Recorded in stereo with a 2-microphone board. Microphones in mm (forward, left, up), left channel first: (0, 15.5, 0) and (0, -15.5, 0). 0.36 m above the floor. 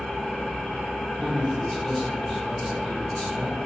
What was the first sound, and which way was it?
An engine running, 25° left (ahead or behind).